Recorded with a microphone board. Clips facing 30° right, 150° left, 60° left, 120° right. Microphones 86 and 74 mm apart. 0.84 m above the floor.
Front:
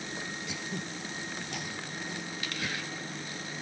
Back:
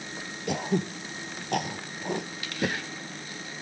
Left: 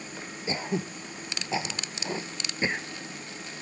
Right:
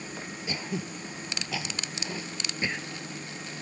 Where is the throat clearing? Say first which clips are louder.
Back 10 dB, left 5 dB; 120° left.